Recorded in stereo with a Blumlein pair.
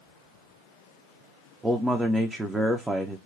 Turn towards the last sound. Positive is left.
turn(degrees=-5)